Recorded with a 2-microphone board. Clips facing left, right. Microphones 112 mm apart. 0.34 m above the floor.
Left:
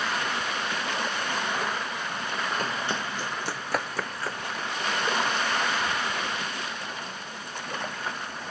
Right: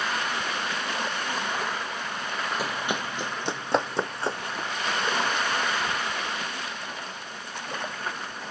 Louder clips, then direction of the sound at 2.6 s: Even; 10° right (ahead or behind).